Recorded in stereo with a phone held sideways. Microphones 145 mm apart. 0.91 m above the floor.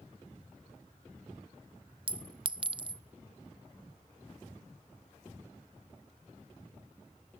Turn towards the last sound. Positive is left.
turn(degrees=-35)  # may be behind; listen again after turning